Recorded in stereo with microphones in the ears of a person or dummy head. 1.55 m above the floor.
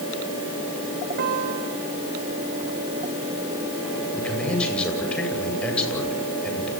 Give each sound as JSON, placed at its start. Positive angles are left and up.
{"t": 1.2, "sound": "a piano", "side_deg": -50, "distance_m": 4.0}
{"t": 4.1, "sound": "a man speaking", "side_deg": 0, "distance_m": 9.5}